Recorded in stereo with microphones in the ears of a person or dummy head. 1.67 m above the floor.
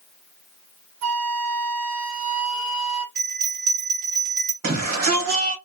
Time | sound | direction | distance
1.0 | a flute | 75° right (ahead or behind) | 1.6 m
3.1 | a bell | 50° right (ahead or behind) | 1.7 m
4.6 | a shout | 55° right (ahead or behind) | 1.0 m